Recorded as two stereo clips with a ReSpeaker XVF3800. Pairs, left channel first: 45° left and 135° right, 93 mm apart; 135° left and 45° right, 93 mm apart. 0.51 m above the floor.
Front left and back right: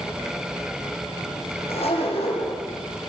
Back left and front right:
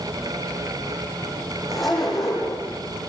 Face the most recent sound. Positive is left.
turn(degrees=45)